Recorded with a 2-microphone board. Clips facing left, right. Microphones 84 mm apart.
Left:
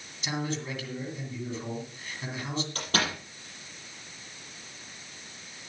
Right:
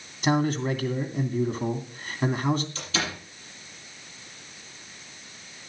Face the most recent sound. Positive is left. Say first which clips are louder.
# left 1 dB
turn(degrees=50)  # may be behind; listen again after turning